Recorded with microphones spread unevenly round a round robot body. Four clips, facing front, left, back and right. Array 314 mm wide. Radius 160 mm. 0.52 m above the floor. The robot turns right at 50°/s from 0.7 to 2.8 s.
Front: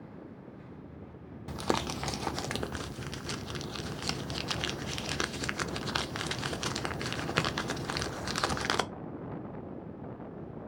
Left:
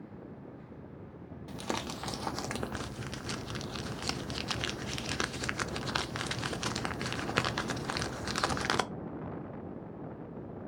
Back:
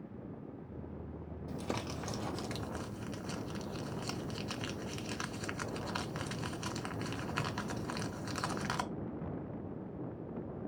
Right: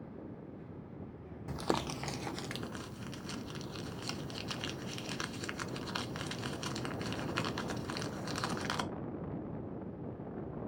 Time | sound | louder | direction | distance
1.5 | crumpling | right 2 dB, front 8 dB | 20° right | 0.6 m